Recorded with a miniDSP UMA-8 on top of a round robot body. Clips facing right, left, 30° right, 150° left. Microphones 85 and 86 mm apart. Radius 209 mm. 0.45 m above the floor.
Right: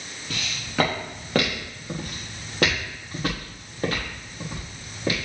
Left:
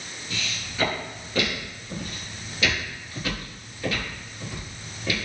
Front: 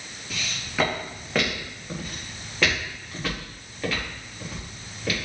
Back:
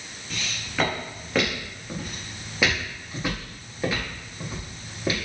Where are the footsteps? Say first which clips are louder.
Right 4 dB, even; 115° right, 4.5 m; by 5.2 s 145° right, 5.5 m.